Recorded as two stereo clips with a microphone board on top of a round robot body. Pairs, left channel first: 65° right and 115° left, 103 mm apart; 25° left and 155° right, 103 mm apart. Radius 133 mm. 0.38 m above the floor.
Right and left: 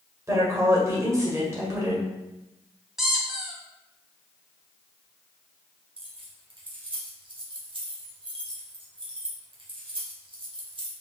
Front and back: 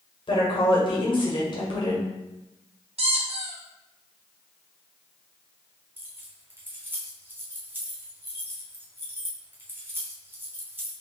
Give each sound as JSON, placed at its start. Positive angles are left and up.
{"t": 0.3, "sound": "a woman speaking", "azimuth_deg": 55, "distance_m": 1.8}
{"t": 3.0, "sound": "a squeak", "azimuth_deg": -160, "distance_m": 0.9}
{"t": 6.0, "sound": "keys jangling", "azimuth_deg": 135, "distance_m": 1.2}